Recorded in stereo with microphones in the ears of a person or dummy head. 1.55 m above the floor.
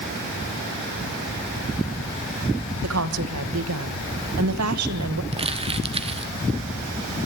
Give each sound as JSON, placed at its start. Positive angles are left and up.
{"t": 2.8, "sound": "a woman speaking", "side_deg": -90, "distance_m": 1.8}
{"t": 5.3, "sound": "crumpling", "side_deg": -35, "distance_m": 1.1}